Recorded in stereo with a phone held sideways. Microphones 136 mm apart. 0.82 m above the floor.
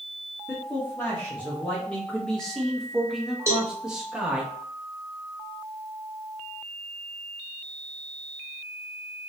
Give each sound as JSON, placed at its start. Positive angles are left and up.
{"t": 0.5, "sound": "a man speaking", "side_deg": 10, "distance_m": 1.4}
{"t": 3.5, "sound": "a cowbell", "side_deg": -20, "distance_m": 0.9}